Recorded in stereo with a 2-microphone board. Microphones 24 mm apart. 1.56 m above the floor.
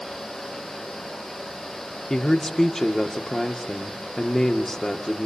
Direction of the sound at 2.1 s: 15° left (ahead or behind).